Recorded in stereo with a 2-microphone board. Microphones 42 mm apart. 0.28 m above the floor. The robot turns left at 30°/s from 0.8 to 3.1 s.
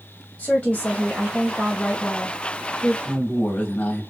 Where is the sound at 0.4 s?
65° left, 1.4 m; by 3.0 s straight ahead, 1.4 m.